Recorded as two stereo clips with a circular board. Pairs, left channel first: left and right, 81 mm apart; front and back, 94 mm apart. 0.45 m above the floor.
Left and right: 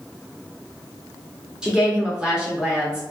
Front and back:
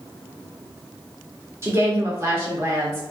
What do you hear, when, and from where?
1.6 s a woman speaking: 160° right, 1.2 m